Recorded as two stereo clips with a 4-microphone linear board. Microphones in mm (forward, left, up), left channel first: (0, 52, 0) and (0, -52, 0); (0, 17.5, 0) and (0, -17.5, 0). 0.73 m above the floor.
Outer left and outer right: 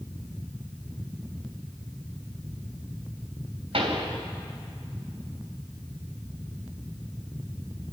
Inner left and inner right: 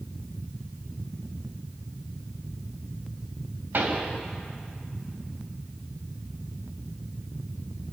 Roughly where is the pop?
Right.